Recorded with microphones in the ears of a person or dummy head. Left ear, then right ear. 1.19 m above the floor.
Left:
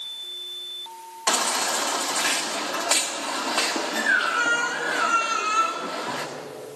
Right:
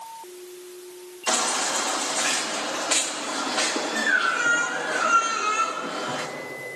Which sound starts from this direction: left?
A baby crying, at 1.3 s.